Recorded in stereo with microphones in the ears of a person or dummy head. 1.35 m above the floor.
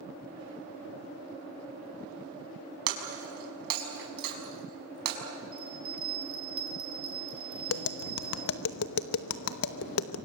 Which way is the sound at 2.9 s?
55° right (ahead or behind).